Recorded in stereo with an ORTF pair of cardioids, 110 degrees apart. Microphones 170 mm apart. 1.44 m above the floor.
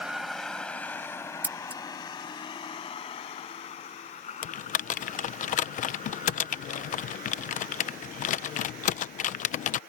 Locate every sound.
0.0 s a vehicle: 5° right; by 9.9 s 60° left
1.4 s scissors: 10° right
4.4 s typing on a keyboard: 50° left